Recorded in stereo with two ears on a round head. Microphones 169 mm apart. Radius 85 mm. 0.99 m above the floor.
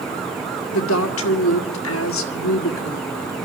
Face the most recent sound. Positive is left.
turn(degrees=80)